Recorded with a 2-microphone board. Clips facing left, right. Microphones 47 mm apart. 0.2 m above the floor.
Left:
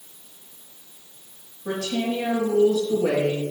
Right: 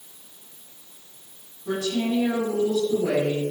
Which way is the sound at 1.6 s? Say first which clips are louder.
Right 1 dB; 65° left (ahead or behind).